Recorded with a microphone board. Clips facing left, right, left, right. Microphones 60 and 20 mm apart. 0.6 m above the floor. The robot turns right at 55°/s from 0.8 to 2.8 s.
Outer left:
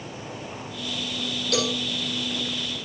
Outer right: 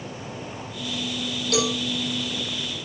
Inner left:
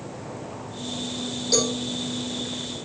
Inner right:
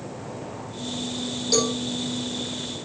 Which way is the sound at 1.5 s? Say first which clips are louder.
Outer right 2 dB, even; centre (ahead or behind).